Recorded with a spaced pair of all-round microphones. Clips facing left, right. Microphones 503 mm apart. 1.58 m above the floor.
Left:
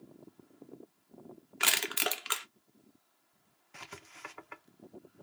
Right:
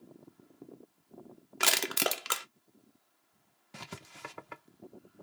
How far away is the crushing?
About 0.6 m.